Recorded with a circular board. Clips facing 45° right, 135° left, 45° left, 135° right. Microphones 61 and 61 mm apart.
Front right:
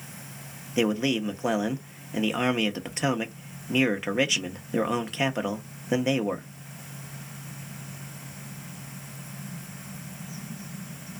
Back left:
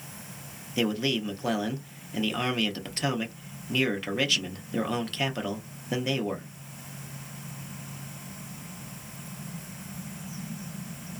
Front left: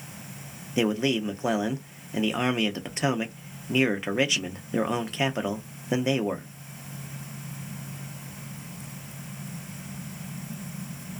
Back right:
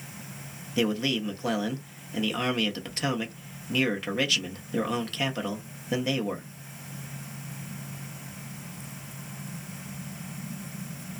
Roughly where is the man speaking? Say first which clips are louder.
Front right 3 dB, front left 2 dB; ahead.